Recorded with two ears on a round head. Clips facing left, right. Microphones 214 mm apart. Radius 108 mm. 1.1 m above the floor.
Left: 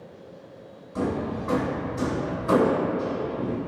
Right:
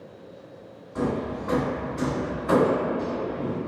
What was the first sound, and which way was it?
Hammering, 35° left (ahead or behind).